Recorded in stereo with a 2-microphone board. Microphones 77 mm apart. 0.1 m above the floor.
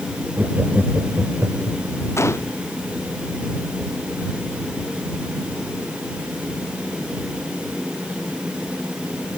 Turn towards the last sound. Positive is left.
turn(degrees=35)  # may be behind; listen again after turning